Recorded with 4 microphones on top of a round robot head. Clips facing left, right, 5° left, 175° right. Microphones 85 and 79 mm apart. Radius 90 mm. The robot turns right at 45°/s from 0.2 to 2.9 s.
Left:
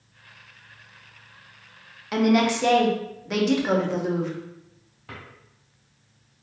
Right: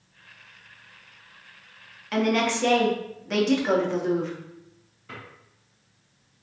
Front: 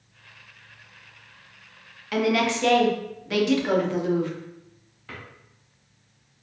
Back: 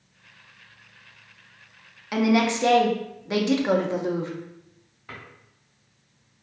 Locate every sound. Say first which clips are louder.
2.1 s a woman speaking: left 3 dB, back 2 dB; 135° left, 0.6 m; by 4.3 s 170° left, 0.6 m
5.1 s a drawer: even, front 1 dB; 110° left, 1.4 m